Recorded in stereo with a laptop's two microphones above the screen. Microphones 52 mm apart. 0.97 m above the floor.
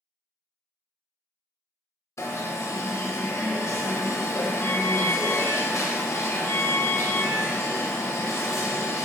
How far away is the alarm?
About 0.5 m.